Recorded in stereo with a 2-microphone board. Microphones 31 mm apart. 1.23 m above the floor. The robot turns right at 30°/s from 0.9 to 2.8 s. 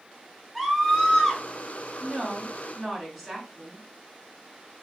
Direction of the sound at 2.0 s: 35° right (ahead or behind).